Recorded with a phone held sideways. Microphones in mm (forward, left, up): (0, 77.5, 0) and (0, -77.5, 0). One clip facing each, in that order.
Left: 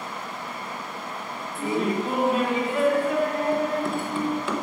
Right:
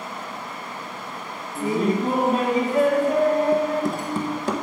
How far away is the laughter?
About 0.9 m.